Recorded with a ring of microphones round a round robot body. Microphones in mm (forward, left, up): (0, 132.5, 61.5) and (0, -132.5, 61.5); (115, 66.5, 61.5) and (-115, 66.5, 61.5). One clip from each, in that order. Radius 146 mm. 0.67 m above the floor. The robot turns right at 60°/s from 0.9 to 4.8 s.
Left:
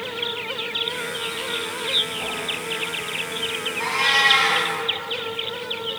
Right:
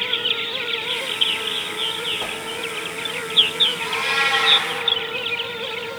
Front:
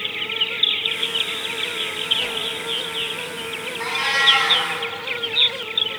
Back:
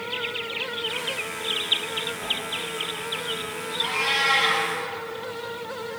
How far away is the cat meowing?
About 1.8 m.